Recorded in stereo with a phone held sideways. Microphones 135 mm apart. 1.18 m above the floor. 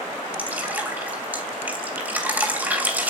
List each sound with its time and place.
0.4 s dripping: 15° right (ahead or behind), 3 m